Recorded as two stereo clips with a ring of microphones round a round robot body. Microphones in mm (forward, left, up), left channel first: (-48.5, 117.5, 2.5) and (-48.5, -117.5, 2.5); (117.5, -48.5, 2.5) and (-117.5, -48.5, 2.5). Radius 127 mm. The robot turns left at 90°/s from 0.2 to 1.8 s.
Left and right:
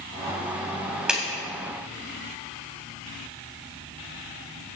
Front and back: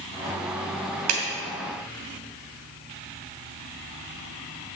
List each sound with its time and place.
1.1 s a clap: 175° right, 2.5 m; by 1.2 s 175° left, 2.5 m